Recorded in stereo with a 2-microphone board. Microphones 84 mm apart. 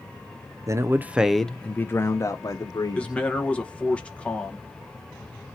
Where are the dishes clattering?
No dishes clattering in this recording.